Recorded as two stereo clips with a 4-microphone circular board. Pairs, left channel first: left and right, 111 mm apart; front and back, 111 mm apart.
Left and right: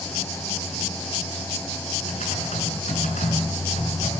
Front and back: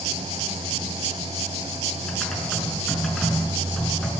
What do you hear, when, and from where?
2.1 s typing on a keyboard: 85° left, 7.5 m